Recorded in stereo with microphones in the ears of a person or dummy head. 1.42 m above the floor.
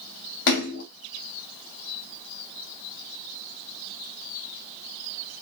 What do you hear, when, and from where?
0.5 s a splash: 60° left (ahead or behind), 4 m